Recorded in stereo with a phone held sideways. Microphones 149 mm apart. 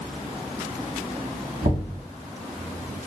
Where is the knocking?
65° right (ahead or behind), 0.9 m.